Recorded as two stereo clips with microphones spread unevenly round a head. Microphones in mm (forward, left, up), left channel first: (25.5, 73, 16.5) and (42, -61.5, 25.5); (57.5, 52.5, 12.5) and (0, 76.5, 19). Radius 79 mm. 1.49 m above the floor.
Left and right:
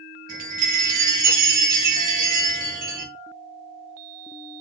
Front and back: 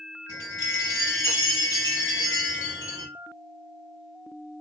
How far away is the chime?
About 1.2 m.